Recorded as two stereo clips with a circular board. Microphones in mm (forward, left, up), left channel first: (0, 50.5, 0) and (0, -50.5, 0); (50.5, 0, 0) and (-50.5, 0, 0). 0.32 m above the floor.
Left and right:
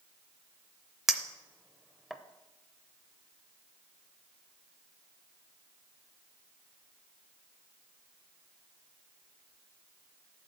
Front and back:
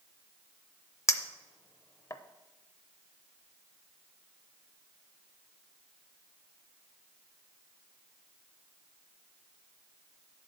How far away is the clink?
About 0.5 m.